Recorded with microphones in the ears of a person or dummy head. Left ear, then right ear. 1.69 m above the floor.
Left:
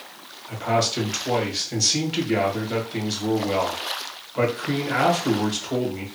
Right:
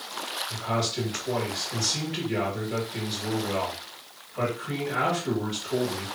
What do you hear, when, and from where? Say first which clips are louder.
0.5 s a man speaking: left 8 dB; 55° left (ahead or behind), 1.5 m